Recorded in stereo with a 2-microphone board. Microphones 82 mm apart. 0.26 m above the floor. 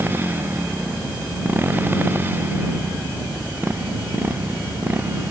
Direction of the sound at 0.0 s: 25° right (ahead or behind).